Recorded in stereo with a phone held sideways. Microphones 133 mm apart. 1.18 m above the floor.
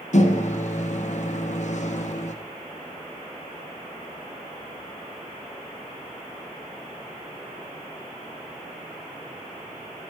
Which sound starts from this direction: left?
A microwave, at 0.1 s.